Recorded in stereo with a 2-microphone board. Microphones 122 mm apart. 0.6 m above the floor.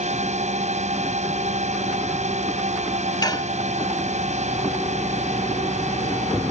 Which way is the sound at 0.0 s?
70° right (ahead or behind).